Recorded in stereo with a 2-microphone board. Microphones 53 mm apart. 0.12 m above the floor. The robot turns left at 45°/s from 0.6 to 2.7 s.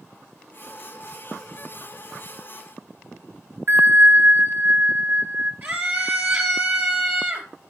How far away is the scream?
About 2 m.